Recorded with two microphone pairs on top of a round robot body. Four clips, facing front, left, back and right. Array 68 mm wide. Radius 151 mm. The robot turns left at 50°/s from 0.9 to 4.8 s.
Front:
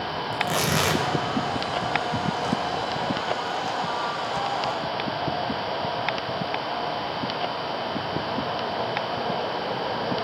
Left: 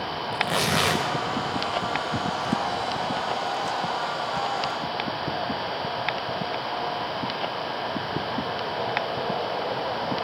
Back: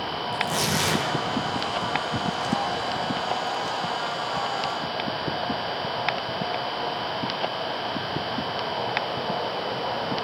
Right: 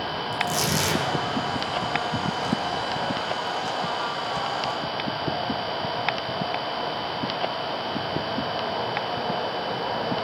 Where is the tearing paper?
55° left, 3.5 m; by 1.0 s 50° left, 3.5 m.